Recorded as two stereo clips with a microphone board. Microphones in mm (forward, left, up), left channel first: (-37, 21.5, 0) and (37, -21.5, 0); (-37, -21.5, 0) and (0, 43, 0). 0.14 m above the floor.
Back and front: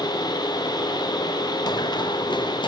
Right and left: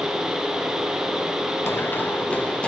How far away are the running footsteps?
About 1.9 m.